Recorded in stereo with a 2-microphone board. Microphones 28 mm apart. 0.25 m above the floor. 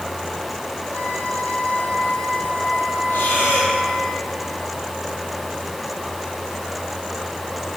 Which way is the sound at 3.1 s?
75° left (ahead or behind).